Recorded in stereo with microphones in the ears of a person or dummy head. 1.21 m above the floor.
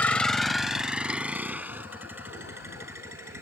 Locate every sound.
0.0 s a vehicle: 15° left (ahead or behind); by 3.4 s 10° right (ahead or behind)